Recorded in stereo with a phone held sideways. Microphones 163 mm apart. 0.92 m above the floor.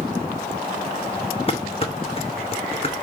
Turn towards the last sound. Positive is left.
turn(degrees=35)  # may be behind; listen again after turning